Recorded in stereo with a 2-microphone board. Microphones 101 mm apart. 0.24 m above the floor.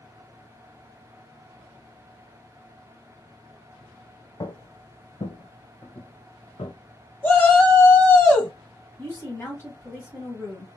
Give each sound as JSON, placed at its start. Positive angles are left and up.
{"t": 4.4, "sound": "footsteps", "side_deg": 45, "distance_m": 0.6}
{"t": 7.2, "sound": "a shout", "side_deg": 20, "distance_m": 1.3}
{"t": 9.0, "sound": "a woman speaking", "side_deg": 25, "distance_m": 1.6}